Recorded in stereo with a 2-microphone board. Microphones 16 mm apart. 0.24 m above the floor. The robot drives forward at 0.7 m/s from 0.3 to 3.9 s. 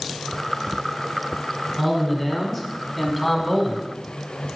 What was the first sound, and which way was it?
A man speaking, 10° left (ahead or behind).